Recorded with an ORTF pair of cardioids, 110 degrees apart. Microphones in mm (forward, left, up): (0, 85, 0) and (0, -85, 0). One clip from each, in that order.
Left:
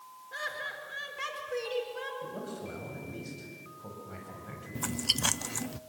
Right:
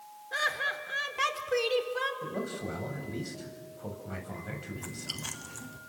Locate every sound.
0.3 s laughter: 40° right, 4.5 m
2.2 s a man speaking: 30° right, 8.5 m
4.8 s chewing: 55° left, 0.8 m